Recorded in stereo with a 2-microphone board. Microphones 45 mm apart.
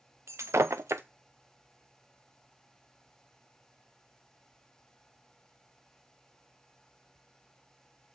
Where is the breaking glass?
80° right, 0.5 m.